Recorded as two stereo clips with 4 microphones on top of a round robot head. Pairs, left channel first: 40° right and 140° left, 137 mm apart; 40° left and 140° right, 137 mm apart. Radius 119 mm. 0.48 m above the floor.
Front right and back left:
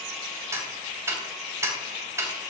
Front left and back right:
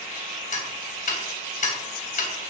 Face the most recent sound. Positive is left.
turn(degrees=65)